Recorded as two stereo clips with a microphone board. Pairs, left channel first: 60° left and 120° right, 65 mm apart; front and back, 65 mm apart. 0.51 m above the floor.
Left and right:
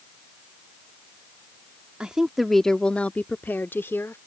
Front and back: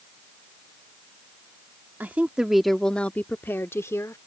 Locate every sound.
2.0 s a woman speaking: 175° left; by 4.2 s 20° left